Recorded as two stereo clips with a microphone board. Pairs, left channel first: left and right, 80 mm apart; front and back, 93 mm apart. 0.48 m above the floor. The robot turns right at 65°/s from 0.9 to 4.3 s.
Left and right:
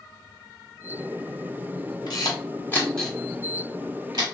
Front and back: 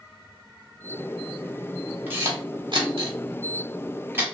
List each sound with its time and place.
2.1 s a camera shutter: 110° left, 1.1 m; by 4.2 s 110° right, 1.1 m